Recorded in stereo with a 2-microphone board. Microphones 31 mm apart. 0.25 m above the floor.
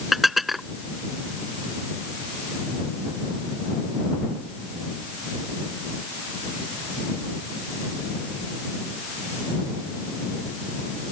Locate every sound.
0.1 s dishes clattering: 5° right (ahead or behind)